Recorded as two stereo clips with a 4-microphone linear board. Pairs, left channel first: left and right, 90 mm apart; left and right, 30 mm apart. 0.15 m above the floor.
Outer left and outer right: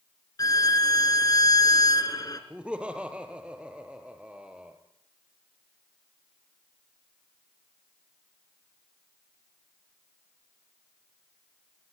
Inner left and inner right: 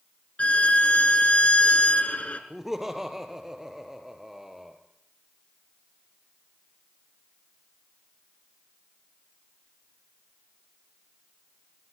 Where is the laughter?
10° right (ahead or behind), 3.5 m.